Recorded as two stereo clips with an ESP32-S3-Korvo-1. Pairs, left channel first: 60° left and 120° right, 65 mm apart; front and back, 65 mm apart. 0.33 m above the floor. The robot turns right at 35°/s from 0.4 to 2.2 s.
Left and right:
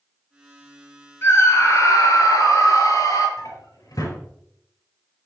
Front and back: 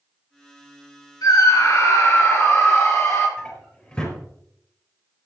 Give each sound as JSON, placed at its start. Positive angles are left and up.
{"t": 1.2, "sound": "a scream", "azimuth_deg": 10, "distance_m": 6.0}
{"t": 3.4, "sound": "a drawer", "azimuth_deg": 70, "distance_m": 4.0}